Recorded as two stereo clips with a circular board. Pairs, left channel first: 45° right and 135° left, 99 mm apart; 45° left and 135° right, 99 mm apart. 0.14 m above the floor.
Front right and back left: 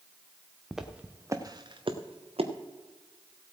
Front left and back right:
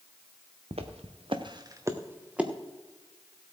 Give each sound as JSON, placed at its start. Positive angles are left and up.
{"t": 0.7, "sound": "footsteps", "azimuth_deg": -135, "distance_m": 1.4}